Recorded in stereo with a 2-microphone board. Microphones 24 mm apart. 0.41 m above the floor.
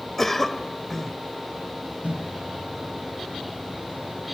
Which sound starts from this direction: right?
A microwave, at 2.0 s.